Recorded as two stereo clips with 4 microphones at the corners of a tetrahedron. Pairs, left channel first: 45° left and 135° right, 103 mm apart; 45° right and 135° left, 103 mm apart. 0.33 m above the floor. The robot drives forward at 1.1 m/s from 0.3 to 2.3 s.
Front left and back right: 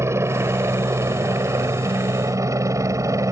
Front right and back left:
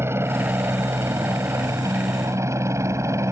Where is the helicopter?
175° right; by 3.3 s straight behind.